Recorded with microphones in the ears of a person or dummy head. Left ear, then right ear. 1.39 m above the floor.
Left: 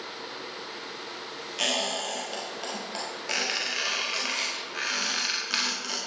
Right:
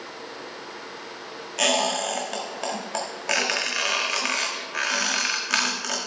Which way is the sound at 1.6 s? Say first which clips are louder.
Right 5 dB; 25° right (ahead or behind).